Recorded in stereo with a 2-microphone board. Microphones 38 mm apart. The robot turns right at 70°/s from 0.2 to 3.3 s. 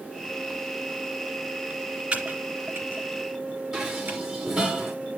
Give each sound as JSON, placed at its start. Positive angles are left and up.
{"t": 2.1, "sound": "typing on a keyboard", "side_deg": -40, "distance_m": 3.0}
{"t": 3.7, "sound": "dishes clattering", "side_deg": -10, "distance_m": 3.0}